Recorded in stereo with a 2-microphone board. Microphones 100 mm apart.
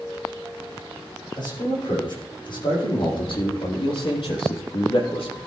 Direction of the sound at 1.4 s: 55° left (ahead or behind).